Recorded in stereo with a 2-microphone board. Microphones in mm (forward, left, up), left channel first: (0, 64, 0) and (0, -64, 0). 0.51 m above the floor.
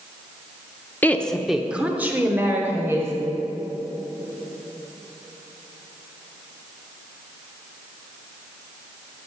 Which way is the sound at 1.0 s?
15° left (ahead or behind).